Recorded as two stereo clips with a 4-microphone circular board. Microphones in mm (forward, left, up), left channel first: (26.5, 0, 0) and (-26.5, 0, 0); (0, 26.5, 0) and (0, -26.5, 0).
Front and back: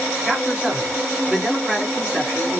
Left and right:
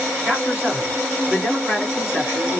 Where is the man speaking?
120° right, 1.7 m.